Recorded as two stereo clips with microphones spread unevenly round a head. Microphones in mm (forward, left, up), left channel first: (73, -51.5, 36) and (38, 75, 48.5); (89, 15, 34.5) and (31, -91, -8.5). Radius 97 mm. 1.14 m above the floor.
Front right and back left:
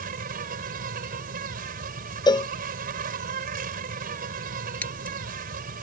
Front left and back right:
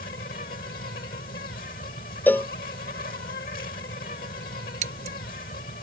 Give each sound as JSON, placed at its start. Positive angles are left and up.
{"t": 0.0, "sound": "an insect", "azimuth_deg": 100}
{"t": 2.3, "sound": "a cowbell", "azimuth_deg": -15}
{"t": 4.8, "sound": "scissors", "azimuth_deg": -155}